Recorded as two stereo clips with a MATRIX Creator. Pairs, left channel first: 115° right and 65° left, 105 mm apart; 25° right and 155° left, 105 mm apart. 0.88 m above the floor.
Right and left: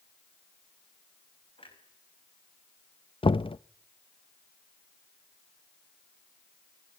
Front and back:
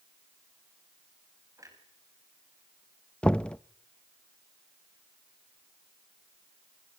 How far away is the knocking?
About 0.5 m.